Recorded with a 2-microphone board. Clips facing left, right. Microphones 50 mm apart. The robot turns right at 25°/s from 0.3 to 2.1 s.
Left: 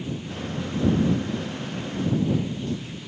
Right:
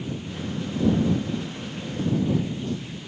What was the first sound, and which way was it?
Only background noise.